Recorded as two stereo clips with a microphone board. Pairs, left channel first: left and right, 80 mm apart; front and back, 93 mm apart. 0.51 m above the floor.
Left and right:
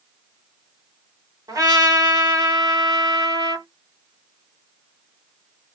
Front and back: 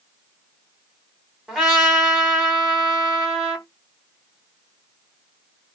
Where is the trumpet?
100° right, 1.5 m.